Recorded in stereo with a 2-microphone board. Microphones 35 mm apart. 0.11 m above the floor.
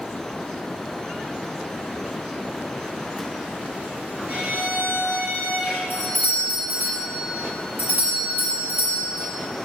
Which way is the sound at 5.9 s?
55° right (ahead or behind).